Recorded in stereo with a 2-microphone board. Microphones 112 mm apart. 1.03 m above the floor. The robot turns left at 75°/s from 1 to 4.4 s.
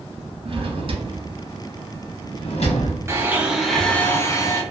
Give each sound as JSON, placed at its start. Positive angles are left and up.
{"t": 0.5, "sound": "a drawer", "side_deg": -55, "distance_m": 0.7}
{"t": 3.1, "sound": "a blender", "azimuth_deg": -135, "distance_m": 0.6}